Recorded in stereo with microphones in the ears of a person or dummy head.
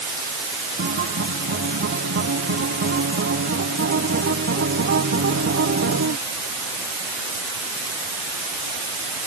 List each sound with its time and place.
0.8 s a guitar: 55° right (ahead or behind)